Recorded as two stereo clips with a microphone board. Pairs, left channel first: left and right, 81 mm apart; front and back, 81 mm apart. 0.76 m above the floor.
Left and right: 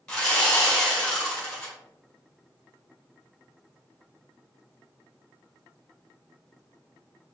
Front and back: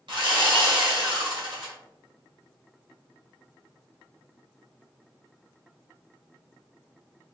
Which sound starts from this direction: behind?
Sawing, at 0.1 s.